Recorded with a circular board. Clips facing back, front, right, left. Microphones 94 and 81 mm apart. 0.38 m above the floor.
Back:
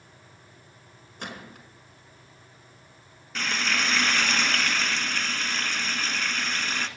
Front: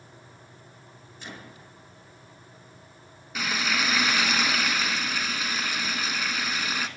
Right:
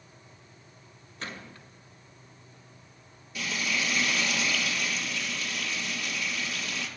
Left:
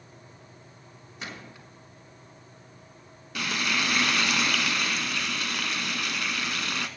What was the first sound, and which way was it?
A gunshot, 165° left.